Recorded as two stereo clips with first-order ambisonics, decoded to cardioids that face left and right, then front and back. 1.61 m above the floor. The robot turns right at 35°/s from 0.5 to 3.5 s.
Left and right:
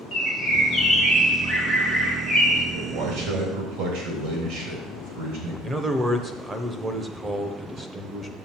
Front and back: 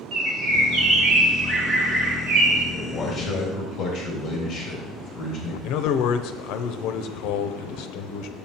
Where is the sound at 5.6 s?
15° right, 0.6 m.